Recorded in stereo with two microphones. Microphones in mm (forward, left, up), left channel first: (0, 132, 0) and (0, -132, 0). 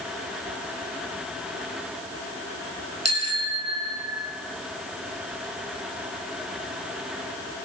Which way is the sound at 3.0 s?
70° right (ahead or behind).